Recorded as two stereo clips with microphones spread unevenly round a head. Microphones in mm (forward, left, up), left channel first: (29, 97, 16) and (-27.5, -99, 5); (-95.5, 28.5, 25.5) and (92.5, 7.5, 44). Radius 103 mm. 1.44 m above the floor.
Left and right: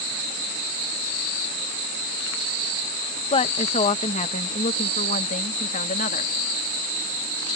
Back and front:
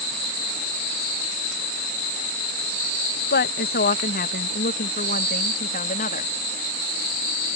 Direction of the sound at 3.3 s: 135° left.